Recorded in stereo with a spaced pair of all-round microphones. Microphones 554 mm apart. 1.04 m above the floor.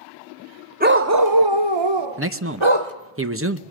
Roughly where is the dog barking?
Centre.